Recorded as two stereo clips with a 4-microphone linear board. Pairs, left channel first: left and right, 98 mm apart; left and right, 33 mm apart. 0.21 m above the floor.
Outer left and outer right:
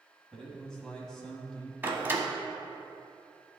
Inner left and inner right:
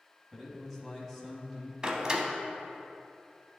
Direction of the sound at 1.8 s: 20° right (ahead or behind).